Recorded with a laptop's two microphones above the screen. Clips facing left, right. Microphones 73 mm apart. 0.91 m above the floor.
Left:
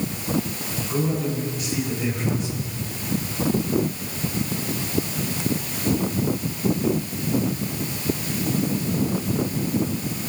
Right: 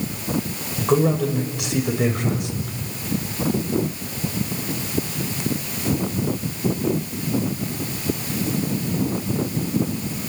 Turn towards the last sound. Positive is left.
turn(degrees=-60)  # may be behind; listen again after turning